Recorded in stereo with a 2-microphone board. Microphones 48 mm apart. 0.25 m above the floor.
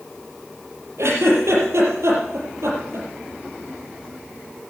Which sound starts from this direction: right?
A giggle, at 1.0 s.